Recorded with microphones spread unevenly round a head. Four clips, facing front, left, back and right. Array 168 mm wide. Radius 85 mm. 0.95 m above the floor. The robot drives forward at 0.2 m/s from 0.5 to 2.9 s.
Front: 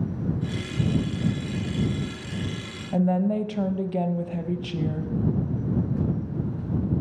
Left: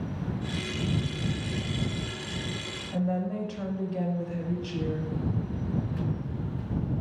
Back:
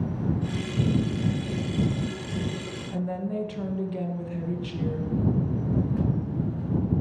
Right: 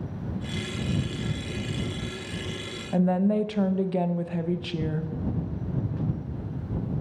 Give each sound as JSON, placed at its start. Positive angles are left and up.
{"t": 2.9, "sound": "a woman speaking", "azimuth_deg": -50, "distance_m": 0.6}